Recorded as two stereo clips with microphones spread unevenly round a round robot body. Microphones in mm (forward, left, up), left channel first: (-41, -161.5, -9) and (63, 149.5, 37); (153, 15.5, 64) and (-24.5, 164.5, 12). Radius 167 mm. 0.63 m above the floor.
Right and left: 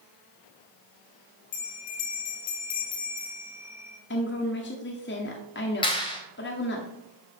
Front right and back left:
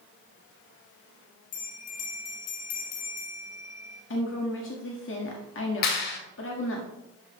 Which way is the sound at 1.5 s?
75° right.